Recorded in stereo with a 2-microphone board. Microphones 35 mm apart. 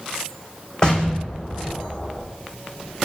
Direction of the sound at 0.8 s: 25° left (ahead or behind).